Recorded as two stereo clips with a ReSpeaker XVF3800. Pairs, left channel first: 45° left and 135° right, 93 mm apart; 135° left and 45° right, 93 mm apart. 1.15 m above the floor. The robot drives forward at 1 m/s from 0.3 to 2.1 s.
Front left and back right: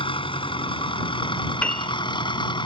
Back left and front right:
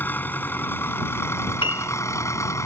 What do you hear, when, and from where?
0.0 s an engine running: 65° left; by 2.7 s 75° left
1.6 s a piano: 120° left; by 1.9 s 125° left